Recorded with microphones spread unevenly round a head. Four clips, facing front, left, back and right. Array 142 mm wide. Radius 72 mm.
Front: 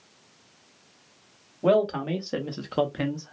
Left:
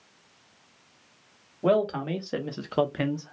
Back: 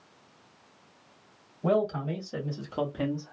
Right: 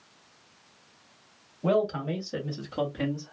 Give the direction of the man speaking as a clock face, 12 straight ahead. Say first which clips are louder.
Left 2 dB, front 5 dB; 11 o'clock.